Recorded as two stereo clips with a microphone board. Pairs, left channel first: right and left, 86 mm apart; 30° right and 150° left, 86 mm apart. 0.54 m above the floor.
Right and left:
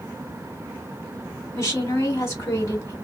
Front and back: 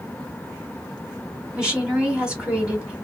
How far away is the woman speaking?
About 1.0 m.